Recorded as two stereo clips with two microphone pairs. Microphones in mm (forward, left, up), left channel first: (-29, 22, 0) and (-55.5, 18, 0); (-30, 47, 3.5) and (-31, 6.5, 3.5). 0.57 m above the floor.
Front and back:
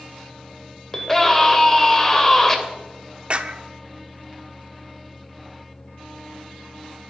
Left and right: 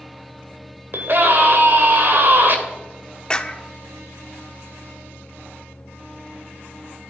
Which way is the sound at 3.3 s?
155° left.